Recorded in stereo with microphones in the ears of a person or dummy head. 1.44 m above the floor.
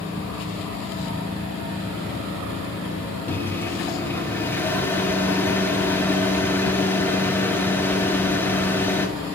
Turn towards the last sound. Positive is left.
turn(degrees=10)  # may be behind; listen again after turning